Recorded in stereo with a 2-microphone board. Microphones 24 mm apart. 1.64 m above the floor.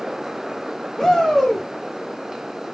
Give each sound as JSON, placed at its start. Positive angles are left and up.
{"t": 1.0, "sound": "a shout", "side_deg": 10, "distance_m": 3.0}